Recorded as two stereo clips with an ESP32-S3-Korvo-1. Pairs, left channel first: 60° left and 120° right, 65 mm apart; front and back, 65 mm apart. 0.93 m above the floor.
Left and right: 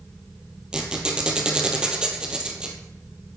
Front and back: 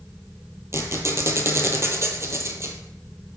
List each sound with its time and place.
0.7 s a squeak: 165° left, 1.2 m